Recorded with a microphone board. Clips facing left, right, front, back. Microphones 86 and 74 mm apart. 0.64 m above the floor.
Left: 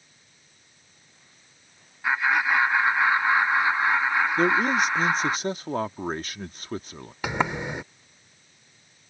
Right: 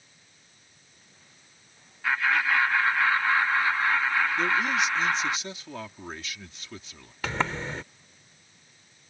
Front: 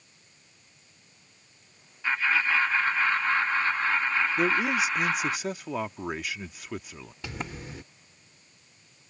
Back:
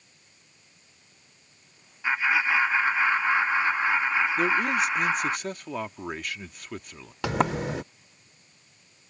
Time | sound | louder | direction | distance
2.0 | laughter | left 2 dB, back 2 dB | 130° left | ?
4.4 | a man speaking | left 4 dB, back 1 dB | 85° left | ?
7.2 | a sliding door | left 3 dB, back 13 dB | 165° left | ?